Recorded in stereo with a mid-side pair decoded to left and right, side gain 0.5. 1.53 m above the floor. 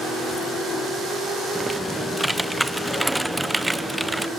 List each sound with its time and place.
1.6 s typing on a keyboard: 5° right, 0.6 m